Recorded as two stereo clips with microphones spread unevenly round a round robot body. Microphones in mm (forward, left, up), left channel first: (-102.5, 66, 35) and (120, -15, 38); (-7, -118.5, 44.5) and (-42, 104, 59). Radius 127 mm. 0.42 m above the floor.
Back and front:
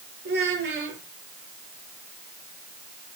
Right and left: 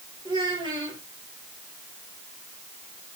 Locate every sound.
0.2 s a child speaking: 25° left, 8.5 m